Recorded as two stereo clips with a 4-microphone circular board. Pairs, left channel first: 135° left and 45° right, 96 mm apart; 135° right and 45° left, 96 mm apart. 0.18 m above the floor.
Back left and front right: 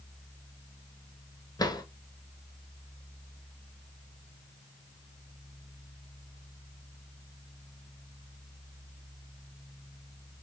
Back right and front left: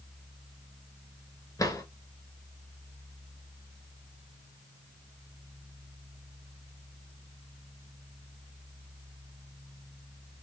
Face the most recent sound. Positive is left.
turn(degrees=180)